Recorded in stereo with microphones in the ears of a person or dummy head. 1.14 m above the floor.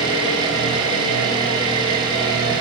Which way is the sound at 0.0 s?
25° right (ahead or behind).